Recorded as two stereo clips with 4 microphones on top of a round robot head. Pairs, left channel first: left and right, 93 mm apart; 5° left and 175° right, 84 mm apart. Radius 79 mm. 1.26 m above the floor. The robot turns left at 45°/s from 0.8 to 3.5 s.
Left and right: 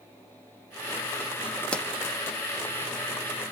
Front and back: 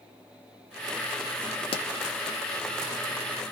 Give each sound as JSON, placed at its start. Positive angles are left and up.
{"t": 1.7, "sound": "a pop", "azimuth_deg": 15, "distance_m": 0.6}